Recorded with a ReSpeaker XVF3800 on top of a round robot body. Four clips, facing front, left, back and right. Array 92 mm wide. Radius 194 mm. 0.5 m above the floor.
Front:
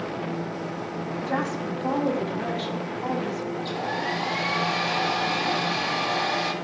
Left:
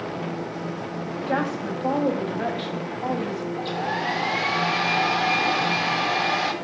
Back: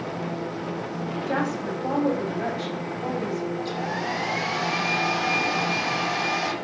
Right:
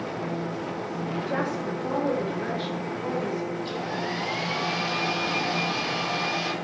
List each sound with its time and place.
1.3 s a woman speaking: 115° left, 3.5 m
3.6 s a hair dryer: 105° left, 2.5 m